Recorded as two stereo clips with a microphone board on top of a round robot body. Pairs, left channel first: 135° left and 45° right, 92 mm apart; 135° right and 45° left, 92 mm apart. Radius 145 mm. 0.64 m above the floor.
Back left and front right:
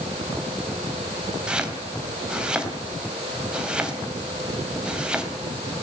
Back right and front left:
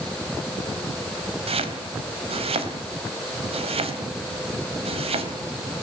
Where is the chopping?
35° left, 3.5 m.